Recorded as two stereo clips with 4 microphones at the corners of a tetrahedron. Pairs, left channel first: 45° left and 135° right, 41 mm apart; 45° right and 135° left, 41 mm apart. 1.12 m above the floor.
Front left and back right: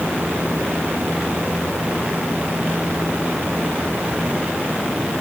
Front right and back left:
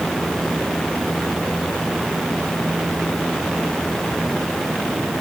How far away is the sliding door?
No sliding door in this recording.